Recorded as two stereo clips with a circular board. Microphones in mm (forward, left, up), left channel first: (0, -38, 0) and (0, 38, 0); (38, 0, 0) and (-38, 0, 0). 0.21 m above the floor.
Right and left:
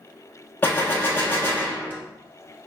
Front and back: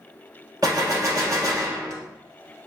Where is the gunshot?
150° right, 1.1 m.